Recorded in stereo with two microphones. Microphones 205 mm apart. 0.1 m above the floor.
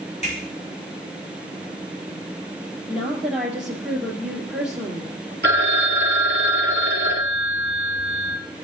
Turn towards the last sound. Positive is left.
turn(degrees=-55)  # may be behind; listen again after turning